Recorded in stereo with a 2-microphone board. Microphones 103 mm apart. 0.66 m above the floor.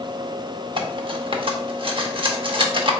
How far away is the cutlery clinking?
About 0.8 m.